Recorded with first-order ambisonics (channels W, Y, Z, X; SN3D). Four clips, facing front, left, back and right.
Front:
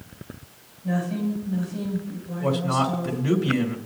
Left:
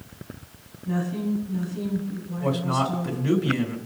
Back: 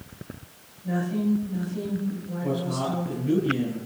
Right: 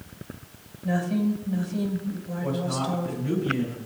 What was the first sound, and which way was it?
A woman speaking, 75° right.